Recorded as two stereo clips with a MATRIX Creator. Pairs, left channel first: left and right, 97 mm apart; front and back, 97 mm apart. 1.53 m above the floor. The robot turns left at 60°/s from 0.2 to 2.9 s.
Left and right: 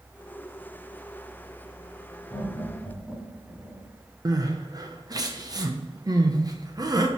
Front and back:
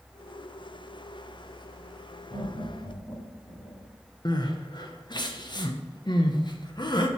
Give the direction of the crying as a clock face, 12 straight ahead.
1 o'clock.